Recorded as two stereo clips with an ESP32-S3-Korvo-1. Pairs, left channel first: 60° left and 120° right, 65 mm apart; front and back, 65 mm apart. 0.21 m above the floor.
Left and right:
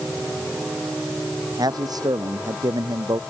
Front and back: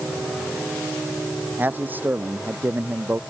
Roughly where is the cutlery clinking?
I don't hear cutlery clinking.